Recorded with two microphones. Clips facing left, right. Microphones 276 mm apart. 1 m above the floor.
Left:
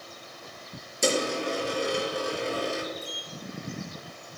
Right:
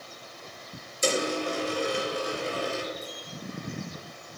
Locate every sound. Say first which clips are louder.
1.0 s a dropped coin: left 1 dB; 80° left, 5.5 m
3.0 s a sliding door: even; 35° left (ahead or behind), 2.5 m